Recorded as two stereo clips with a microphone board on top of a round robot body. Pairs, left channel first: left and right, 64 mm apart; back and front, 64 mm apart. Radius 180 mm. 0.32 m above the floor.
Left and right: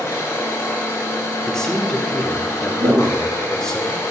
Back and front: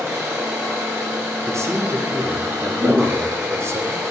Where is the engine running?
50° left, 2.5 m.